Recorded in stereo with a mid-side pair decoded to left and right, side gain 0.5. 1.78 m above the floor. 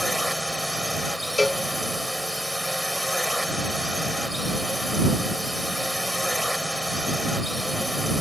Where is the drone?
Straight ahead.